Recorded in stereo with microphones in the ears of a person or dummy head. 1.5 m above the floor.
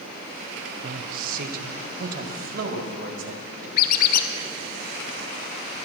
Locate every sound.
0.8 s a man speaking: 55° right (ahead or behind), 0.7 m; by 3.7 s 50° right (ahead or behind), 3 m
3.8 s a squeak: 55° left (ahead or behind), 0.7 m